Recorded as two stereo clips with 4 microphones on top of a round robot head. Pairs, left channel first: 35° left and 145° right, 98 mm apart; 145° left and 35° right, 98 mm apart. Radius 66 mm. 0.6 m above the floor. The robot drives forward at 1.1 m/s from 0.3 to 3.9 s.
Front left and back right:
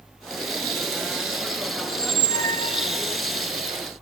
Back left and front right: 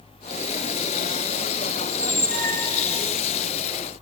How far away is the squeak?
About 0.7 m.